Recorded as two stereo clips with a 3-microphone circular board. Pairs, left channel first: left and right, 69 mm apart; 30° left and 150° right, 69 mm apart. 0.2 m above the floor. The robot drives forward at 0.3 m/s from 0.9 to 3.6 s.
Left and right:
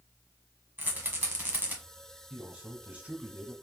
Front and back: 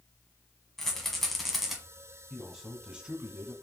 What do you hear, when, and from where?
0.8 s a rattle: 50° right, 1.3 m; by 1.8 s 75° right, 1.3 m
2.3 s a man speaking: 75° right, 1.1 m; by 3.5 s 125° right, 1.1 m